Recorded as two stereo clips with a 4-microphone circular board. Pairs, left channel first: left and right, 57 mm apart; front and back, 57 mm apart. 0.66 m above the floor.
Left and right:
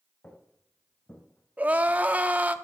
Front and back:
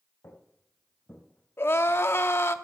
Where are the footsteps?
35° left, 2.5 m; by 2.6 s 65° left, 2.5 m.